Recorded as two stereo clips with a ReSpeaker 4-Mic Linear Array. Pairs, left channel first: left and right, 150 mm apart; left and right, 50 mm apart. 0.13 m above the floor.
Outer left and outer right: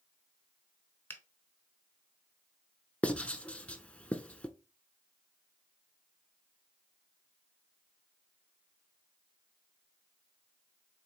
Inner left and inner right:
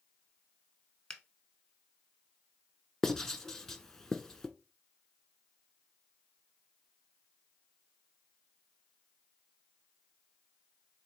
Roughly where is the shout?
No shout in this recording.